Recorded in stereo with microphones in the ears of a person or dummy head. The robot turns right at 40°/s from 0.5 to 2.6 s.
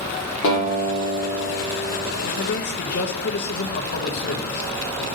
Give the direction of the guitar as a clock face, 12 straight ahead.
10 o'clock.